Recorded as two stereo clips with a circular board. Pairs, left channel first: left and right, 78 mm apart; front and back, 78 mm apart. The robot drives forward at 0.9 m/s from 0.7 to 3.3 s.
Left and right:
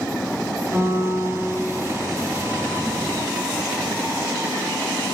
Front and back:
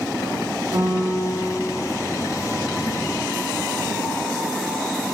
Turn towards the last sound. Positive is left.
turn(degrees=-175)